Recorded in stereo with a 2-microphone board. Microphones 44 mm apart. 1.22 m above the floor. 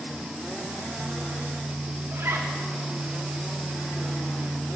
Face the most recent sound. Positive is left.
turn(degrees=-70)  # may be behind; listen again after turning